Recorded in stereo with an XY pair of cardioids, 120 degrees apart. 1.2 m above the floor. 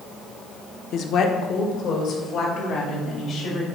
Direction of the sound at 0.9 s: 60° left.